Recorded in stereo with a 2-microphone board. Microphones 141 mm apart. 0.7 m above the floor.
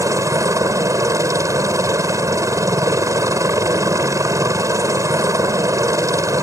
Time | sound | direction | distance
0.0 | a helicopter | 20° right (ahead or behind) | ?